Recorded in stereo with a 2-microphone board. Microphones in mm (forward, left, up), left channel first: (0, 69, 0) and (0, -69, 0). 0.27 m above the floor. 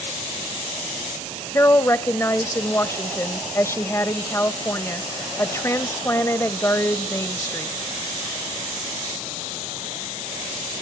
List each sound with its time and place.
1.5 s a woman speaking: 20° left (ahead or behind), 0.9 m